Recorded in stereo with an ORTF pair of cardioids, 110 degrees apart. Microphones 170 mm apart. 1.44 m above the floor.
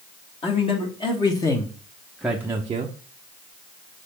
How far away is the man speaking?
About 1.8 m.